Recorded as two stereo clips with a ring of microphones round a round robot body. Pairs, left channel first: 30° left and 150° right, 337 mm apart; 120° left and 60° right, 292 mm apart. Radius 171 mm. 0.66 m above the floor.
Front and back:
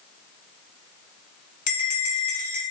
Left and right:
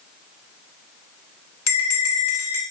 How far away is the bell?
About 1.2 m.